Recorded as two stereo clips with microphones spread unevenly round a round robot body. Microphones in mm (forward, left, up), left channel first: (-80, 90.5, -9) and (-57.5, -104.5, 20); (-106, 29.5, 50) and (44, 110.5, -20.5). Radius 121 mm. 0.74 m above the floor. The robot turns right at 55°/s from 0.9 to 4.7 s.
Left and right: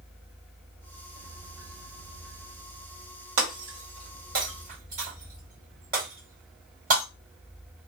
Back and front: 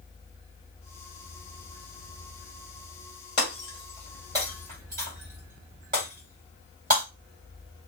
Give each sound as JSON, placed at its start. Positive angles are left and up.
{"t": 3.4, "sound": "breaking glass", "azimuth_deg": -95, "distance_m": 1.5}